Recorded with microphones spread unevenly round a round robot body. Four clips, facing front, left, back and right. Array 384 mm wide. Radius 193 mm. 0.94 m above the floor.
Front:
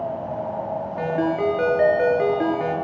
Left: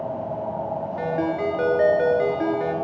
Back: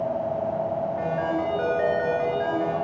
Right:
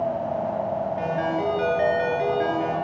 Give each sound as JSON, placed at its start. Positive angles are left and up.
{"t": 1.0, "sound": "a ringtone", "azimuth_deg": 15, "distance_m": 6.0}